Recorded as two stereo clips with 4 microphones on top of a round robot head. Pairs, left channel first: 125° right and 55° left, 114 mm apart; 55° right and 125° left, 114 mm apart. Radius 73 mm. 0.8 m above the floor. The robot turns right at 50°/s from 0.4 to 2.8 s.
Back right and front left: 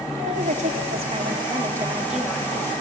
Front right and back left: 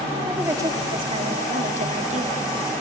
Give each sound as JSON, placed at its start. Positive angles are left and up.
{"t": 0.3, "sound": "a woman speaking", "azimuth_deg": 55, "distance_m": 1.8}